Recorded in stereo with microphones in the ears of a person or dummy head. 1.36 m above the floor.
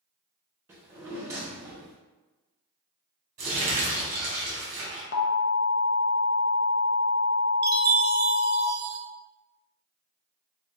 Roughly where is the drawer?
Centre.